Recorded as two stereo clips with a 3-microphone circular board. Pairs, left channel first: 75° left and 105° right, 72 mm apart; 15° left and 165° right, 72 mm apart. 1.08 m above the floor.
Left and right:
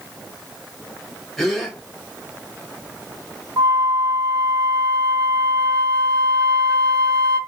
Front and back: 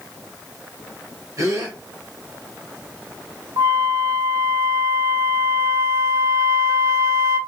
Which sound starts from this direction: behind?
A gasp, at 1.4 s.